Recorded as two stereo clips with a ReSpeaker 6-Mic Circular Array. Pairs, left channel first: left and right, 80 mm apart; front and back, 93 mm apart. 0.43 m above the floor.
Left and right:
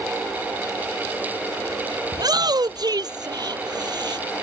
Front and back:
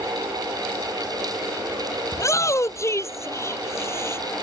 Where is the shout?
55° right; by 4.2 s 60° right.